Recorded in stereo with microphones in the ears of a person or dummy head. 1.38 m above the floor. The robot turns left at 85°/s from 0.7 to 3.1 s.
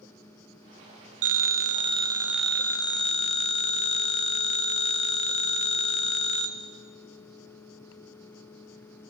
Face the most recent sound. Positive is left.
turn(degrees=125)